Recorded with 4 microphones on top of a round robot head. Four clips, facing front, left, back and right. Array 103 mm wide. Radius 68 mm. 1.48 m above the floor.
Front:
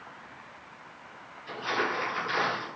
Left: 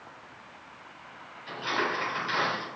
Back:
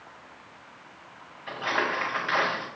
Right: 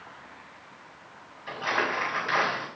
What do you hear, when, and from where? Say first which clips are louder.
1.5 s crumpling: right 2 dB, back 2 dB; 145° right, 3.5 m